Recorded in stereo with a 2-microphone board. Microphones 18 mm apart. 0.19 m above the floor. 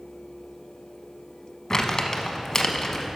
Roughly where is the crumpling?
Left.